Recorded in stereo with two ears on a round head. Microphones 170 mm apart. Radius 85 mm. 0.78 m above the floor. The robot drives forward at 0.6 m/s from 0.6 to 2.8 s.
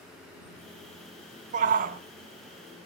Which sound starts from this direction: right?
A shout, at 1.5 s.